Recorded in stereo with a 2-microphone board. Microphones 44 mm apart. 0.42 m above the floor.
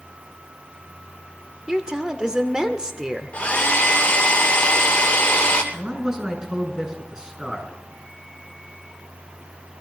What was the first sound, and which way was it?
A woman speaking, 15° right (ahead or behind).